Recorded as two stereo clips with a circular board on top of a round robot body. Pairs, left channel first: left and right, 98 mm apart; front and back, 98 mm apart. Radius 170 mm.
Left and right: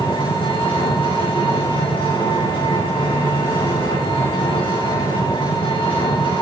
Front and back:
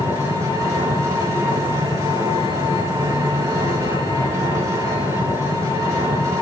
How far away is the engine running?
About 8 m.